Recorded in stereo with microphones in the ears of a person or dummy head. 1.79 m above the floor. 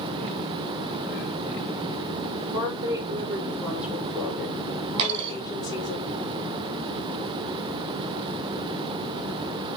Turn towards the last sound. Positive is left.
turn(degrees=-30)  # may be behind; listen again after turning